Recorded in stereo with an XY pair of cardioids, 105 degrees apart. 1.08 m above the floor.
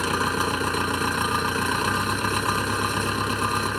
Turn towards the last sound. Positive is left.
turn(degrees=10)